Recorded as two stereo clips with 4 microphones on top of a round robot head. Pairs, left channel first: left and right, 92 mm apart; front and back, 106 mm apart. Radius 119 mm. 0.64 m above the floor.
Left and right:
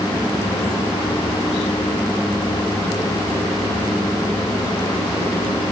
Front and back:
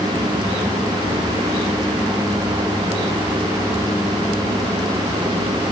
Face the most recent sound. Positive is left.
No sound to turn to.